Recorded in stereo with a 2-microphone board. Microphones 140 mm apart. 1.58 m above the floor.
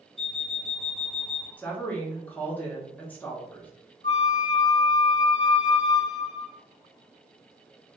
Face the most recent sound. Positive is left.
turn(degrees=30)  # may be behind; listen again after turning